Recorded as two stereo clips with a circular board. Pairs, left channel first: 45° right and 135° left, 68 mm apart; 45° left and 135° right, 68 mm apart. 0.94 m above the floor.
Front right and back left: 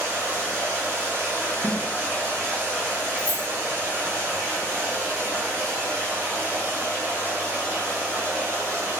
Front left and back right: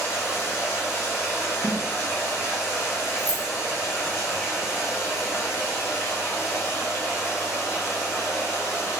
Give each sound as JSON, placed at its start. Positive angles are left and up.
{"t": 0.0, "sound": "running water", "azimuth_deg": 85, "distance_m": 1.0}
{"t": 1.6, "sound": "a snare drum", "azimuth_deg": 95, "distance_m": 1.3}
{"t": 3.2, "sound": "keys jangling", "azimuth_deg": 65, "distance_m": 0.8}